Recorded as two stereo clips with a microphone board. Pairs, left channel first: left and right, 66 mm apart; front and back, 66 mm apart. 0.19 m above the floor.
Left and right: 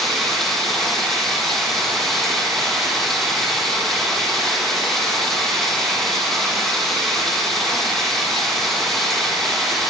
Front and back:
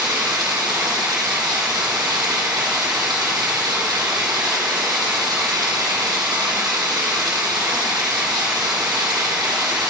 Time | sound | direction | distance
0.0 | running water | 175° left | 3.5 m